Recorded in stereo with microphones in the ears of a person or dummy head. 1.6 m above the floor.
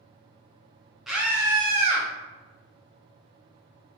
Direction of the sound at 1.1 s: 5° right (ahead or behind).